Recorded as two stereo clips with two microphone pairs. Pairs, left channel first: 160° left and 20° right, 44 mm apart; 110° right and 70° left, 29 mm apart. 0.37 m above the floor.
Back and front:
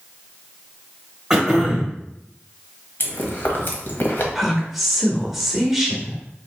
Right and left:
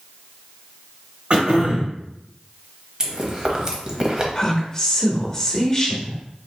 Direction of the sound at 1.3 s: 65° left.